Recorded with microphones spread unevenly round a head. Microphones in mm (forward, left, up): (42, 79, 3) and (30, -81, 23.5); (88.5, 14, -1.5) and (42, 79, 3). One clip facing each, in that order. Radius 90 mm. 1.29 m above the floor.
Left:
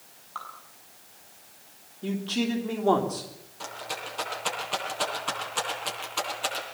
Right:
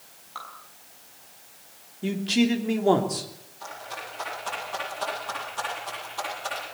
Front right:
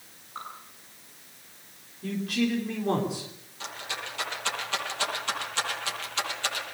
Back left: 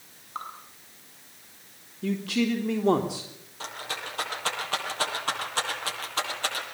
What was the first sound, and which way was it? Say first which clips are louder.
Dripping: even, back left 3 dB; 175° right.